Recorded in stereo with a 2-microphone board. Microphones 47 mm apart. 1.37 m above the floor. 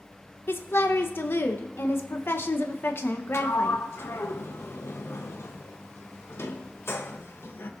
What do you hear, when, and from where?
0.5 s a woman speaking: 50° left (ahead or behind), 1.0 m
3.3 s a sliding door: 55° left (ahead or behind), 0.9 m